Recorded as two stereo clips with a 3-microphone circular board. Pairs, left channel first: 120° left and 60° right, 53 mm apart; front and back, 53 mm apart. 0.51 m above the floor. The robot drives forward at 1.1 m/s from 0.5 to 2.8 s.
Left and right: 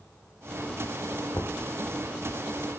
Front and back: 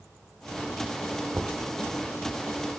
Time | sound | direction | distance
1.3 | knocking | 120° left | 0.6 m